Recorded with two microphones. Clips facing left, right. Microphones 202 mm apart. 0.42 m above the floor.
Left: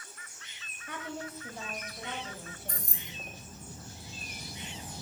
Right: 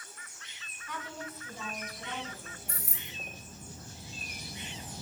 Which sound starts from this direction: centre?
Keys jangling, at 2.7 s.